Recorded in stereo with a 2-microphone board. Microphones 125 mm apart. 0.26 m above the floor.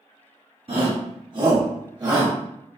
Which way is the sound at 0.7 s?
45° right (ahead or behind).